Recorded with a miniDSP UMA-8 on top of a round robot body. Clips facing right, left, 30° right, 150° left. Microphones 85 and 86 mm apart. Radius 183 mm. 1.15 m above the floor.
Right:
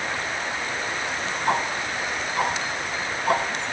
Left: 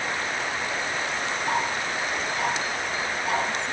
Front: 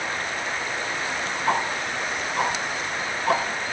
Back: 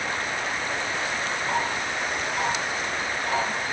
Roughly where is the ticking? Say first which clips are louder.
Right 3 dB, front 4 dB; ahead right.